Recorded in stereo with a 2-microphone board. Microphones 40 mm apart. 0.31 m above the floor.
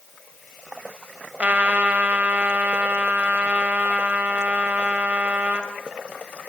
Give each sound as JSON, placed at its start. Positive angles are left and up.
{"t": 1.4, "sound": "a trumpet", "side_deg": -35, "distance_m": 1.8}